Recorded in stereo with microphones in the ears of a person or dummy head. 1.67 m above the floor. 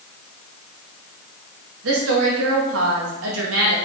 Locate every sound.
1.8 s a woman speaking: 85° right, 2.5 m